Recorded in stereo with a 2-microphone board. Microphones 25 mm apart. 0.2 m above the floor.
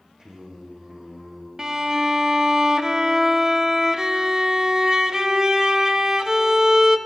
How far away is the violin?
About 0.6 m.